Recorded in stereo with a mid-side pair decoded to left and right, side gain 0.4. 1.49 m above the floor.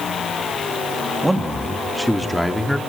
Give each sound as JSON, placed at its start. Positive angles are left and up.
{"t": 1.2, "sound": "a man speaking", "azimuth_deg": -15, "distance_m": 3.5}